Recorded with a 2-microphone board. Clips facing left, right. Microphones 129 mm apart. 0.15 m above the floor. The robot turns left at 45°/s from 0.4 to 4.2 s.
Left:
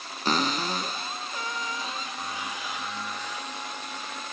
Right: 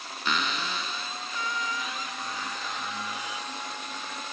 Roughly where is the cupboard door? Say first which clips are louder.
Left 4 dB; behind left.